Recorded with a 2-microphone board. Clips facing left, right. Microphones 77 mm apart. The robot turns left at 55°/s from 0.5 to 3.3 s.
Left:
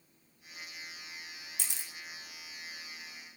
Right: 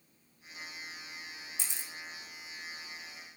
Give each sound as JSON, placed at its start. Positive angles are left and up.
{"t": 1.6, "sound": "a camera shutter", "side_deg": 65, "distance_m": 1.0}